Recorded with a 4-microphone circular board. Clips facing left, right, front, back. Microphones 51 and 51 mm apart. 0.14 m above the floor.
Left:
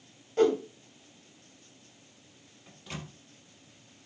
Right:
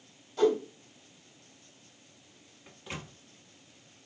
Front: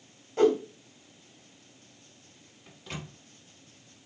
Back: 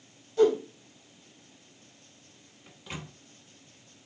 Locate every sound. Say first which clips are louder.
0.4 s a whoosh: left 1 dB, even; 45° left, 1.1 m
2.7 s a microwave: even, even; 115° right, 1.0 m